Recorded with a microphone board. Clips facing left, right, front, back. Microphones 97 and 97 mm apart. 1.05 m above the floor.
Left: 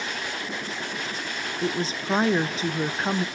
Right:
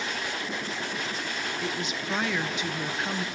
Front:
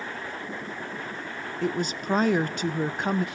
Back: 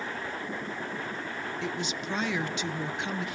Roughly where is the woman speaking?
Ahead left.